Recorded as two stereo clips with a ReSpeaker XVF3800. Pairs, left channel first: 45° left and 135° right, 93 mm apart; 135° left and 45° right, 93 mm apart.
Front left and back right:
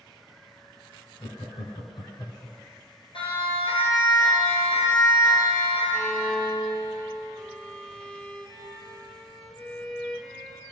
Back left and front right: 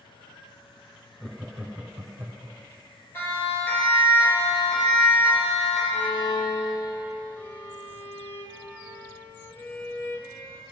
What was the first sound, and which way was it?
Laughter, 50° left.